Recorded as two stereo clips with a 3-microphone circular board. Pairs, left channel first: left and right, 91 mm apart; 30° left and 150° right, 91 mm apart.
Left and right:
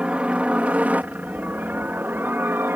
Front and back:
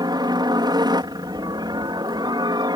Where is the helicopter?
165° right; by 2.8 s 150° right.